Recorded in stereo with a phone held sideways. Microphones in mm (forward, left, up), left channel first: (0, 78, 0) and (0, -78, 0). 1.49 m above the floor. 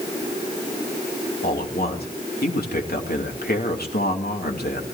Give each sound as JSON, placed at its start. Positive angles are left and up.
{"t": 1.4, "sound": "a man speaking", "side_deg": 85, "distance_m": 3.0}